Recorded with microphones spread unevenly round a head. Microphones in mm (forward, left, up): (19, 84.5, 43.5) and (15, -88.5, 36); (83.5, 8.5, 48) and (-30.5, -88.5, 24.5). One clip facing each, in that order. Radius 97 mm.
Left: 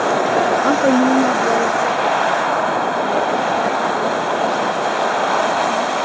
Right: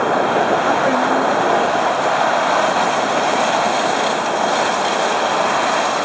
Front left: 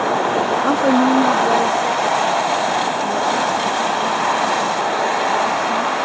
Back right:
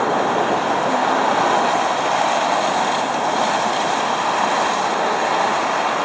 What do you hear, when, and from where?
0.6 s a woman speaking: 55° left; by 6.0 s 25° left